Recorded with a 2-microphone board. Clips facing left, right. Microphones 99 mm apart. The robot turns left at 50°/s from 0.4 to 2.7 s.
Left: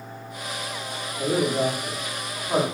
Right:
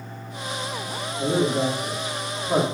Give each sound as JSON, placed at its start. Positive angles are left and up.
{"t": 1.2, "sound": "a man speaking", "side_deg": 10, "distance_m": 0.7}